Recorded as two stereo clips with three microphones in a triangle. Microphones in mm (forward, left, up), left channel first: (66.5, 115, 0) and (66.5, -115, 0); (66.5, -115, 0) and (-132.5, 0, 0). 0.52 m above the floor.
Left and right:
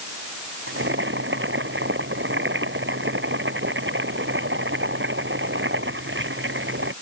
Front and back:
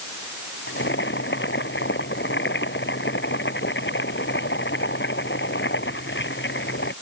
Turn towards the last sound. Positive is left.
turn(degrees=-60)